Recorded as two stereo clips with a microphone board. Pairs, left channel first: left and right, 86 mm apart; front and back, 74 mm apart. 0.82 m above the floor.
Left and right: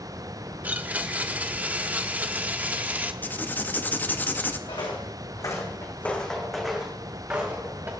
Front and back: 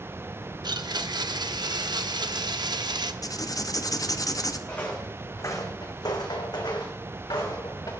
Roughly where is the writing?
Ahead left.